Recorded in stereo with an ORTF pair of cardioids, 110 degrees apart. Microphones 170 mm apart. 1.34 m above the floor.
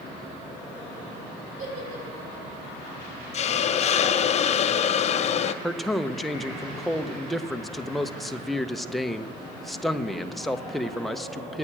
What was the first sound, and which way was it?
A giggle, 55° right.